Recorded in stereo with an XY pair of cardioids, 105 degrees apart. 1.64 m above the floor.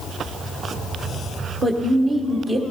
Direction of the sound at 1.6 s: 40° right.